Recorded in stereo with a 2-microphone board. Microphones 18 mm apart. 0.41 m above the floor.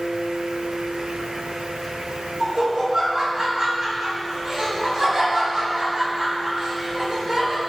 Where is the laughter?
40° right (ahead or behind), 3.5 m.